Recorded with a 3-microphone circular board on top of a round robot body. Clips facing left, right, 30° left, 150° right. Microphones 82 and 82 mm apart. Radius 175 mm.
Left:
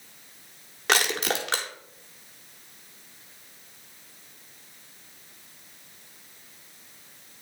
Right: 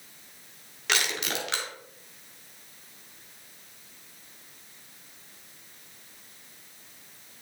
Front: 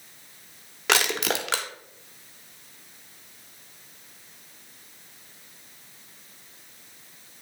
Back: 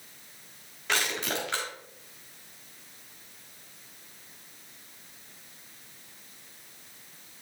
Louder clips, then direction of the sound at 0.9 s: Left 5 dB, front 5 dB; 40° left.